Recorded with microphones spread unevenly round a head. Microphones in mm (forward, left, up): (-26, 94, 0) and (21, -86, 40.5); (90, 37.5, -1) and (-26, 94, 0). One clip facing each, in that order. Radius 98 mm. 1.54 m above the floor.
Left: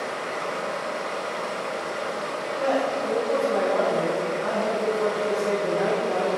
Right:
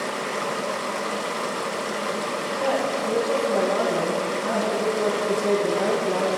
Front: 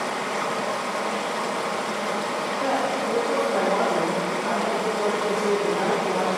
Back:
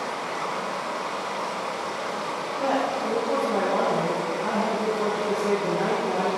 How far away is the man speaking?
About 2 m.